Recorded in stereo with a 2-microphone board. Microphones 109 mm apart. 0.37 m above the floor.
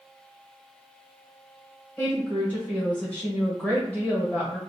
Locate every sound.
2.0 s a woman speaking: 15° left (ahead or behind), 1.1 m